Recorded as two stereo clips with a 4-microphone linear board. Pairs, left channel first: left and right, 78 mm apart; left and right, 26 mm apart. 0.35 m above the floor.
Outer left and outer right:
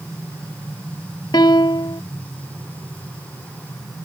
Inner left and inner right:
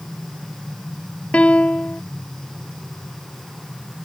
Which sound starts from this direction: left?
A piano, at 1.3 s.